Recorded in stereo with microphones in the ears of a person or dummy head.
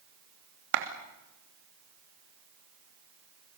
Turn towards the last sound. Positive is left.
turn(degrees=-70)  # may be behind; listen again after turning